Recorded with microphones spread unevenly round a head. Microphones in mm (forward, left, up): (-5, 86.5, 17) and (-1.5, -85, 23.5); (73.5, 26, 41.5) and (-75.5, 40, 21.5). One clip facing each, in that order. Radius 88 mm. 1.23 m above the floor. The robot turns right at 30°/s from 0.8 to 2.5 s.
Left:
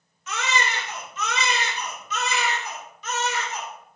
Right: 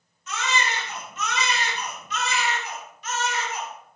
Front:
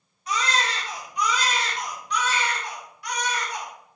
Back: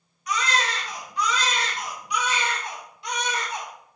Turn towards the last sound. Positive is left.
turn(degrees=105)